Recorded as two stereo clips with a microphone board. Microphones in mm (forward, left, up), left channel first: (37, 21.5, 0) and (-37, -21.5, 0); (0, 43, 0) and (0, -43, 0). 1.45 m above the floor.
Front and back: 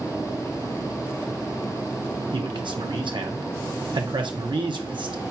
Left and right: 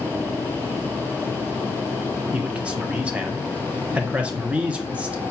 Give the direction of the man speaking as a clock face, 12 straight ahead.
5 o'clock.